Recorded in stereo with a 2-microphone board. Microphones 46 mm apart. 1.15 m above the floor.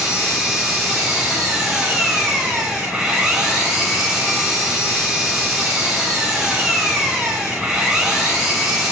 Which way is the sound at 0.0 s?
15° right (ahead or behind).